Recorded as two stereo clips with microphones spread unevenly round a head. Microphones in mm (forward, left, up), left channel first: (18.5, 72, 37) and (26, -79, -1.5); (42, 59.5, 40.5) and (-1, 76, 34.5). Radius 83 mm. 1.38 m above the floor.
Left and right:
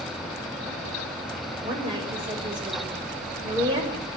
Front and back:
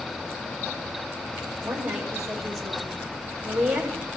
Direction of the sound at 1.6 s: 150° right.